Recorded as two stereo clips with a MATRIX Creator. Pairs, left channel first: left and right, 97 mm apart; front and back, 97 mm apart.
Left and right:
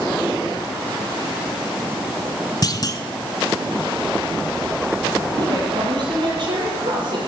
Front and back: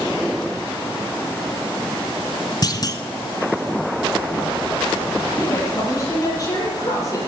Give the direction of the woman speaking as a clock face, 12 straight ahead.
2 o'clock.